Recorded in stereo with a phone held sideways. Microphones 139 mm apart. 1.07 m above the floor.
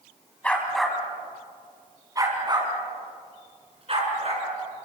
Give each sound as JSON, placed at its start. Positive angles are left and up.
{"t": 0.4, "sound": "a dog barking", "side_deg": 10, "distance_m": 3.5}